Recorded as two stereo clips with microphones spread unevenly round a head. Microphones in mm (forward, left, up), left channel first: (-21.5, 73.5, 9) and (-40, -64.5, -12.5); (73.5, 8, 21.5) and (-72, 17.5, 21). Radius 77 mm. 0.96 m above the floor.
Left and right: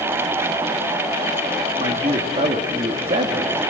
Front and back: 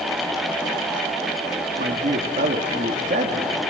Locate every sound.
1.8 s a man speaking: 140° right, 1.8 m